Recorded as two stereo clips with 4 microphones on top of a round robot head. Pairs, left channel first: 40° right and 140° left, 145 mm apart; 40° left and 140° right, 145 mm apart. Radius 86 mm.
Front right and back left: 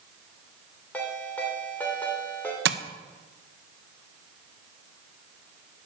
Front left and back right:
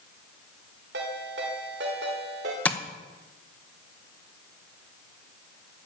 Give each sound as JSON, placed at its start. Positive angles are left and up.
{"t": 0.9, "sound": "a ringtone", "azimuth_deg": -120, "distance_m": 3.0}
{"t": 2.6, "sound": "tapping", "azimuth_deg": 120, "distance_m": 0.9}